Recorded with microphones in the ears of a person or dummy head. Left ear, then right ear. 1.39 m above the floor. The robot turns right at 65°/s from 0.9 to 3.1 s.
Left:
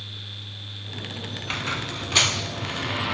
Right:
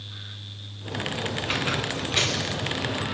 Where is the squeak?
Straight ahead, 1.6 m; by 3.1 s 105° left, 1.6 m.